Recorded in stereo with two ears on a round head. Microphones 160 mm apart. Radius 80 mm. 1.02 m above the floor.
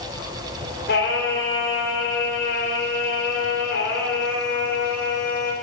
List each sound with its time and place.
0.9 s singing: 60° left (ahead or behind), 3.5 m